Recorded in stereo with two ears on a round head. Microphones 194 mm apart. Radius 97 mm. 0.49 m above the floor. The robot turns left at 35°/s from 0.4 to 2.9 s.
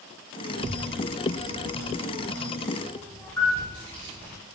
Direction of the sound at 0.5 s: 70° right (ahead or behind).